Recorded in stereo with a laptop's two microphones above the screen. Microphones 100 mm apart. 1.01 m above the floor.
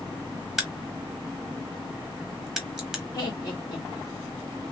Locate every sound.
0.6 s a crack: 5° right (ahead or behind), 0.8 m
3.1 s laughter: 35° left (ahead or behind), 1.5 m